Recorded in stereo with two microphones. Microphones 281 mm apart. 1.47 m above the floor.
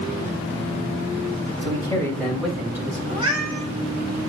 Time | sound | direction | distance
1.6 | a man speaking | 20° left (ahead or behind) | 3.5 m
3.1 | a cat meowing | 20° right (ahead or behind) | 3 m